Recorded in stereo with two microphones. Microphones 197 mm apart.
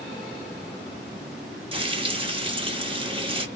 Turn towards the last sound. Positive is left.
turn(degrees=-25)  # may be behind; listen again after turning